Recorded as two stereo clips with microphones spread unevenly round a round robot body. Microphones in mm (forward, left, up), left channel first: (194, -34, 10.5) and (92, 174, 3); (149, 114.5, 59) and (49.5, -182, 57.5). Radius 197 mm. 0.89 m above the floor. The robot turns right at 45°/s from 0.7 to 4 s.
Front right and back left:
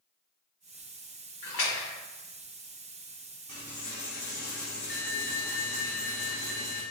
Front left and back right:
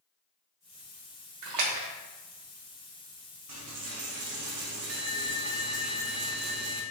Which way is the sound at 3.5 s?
115° right.